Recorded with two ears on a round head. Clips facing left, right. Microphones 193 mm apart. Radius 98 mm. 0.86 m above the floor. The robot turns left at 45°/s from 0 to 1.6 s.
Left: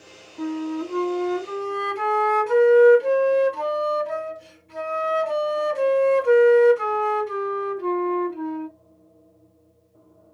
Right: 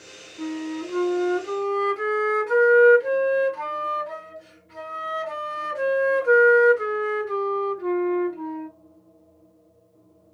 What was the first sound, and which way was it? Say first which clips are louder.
A flute: left 3 dB; 120° left.